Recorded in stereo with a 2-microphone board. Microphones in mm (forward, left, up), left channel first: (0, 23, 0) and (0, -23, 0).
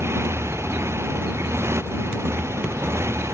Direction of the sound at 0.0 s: 70° right (ahead or behind).